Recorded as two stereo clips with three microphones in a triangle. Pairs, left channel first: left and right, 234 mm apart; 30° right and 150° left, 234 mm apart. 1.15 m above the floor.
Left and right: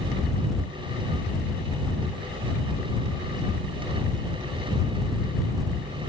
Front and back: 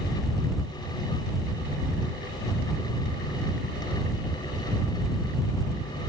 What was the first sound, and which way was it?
Only background noise.